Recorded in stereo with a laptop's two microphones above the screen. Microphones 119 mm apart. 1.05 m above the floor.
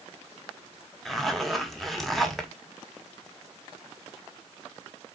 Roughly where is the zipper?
Centre.